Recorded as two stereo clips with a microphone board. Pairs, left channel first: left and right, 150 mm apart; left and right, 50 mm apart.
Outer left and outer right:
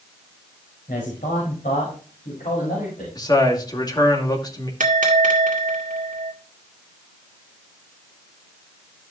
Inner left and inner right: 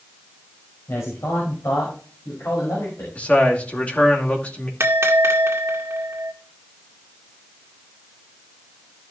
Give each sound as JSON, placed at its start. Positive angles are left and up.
{"t": 0.9, "sound": "a man speaking", "side_deg": 70, "distance_m": 5.5}
{"t": 3.1, "sound": "a man speaking", "side_deg": 30, "distance_m": 2.5}
{"t": 4.8, "sound": "a bell", "side_deg": -65, "distance_m": 1.9}